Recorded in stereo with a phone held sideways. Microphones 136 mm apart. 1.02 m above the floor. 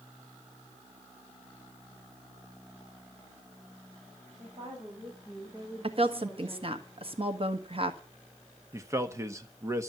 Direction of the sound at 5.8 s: 45° right (ahead or behind).